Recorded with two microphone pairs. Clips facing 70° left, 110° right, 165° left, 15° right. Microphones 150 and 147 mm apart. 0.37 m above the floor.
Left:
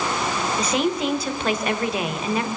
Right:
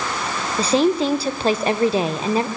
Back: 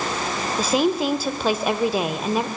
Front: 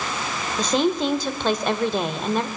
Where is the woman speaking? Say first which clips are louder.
Right 7 dB, even; 120° right, 1.1 m.